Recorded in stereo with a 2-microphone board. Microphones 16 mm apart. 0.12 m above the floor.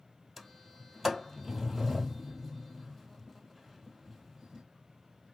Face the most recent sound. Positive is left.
turn(degrees=-5)  # may be behind; listen again after turning